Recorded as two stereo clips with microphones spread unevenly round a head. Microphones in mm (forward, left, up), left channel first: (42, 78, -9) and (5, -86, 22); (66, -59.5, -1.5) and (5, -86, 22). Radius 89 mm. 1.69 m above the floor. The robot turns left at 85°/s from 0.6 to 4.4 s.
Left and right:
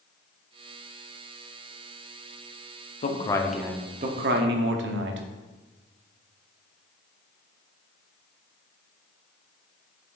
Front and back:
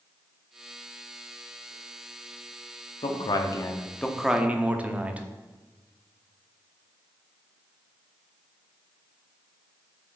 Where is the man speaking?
30° left, 1.0 m; by 5.3 s 90° right, 1.0 m.